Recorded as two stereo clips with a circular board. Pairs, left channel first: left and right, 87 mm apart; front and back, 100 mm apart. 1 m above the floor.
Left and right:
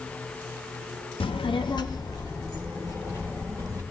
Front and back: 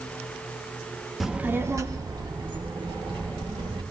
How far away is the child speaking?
About 0.7 m.